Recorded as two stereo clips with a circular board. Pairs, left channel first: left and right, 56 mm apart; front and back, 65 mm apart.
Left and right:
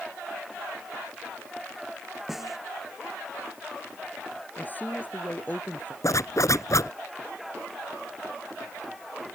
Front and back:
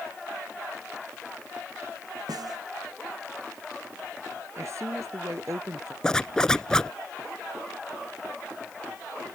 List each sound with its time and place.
2.3 s a snare drum: 175° right
4.6 s a woman speaking: 145° left
6.0 s a zipper: 80° left